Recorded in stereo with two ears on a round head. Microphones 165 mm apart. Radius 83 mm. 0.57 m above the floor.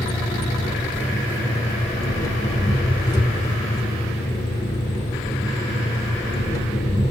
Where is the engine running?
20° left (ahead or behind), 1.1 m.